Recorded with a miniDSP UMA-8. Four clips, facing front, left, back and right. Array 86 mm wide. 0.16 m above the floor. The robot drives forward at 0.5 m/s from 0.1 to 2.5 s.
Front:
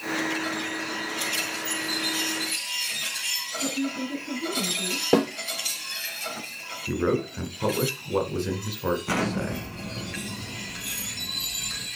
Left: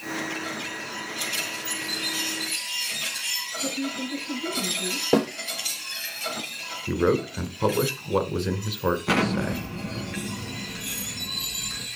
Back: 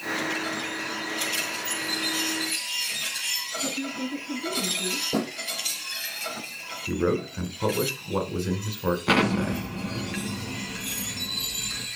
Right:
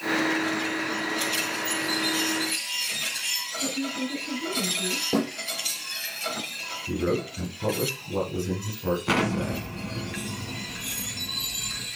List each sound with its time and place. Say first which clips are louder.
3.6 s a woman speaking: even, front 3 dB; 40° right, 3.5 m
5.1 s a snare drum: left 4 dB, front 7 dB; 30° left, 3 m
6.9 s a man speaking: left 4 dB, even; 90° left, 1.6 m
9.1 s an explosion: left 1 dB, back 4 dB; 175° left, 1.5 m